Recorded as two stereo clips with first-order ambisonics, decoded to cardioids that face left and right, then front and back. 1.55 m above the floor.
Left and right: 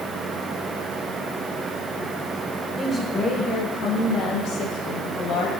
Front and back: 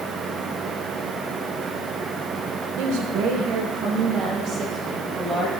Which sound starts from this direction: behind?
A woman speaking, at 2.8 s.